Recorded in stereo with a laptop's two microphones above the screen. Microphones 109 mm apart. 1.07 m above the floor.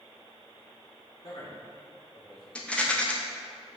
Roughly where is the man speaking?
Left.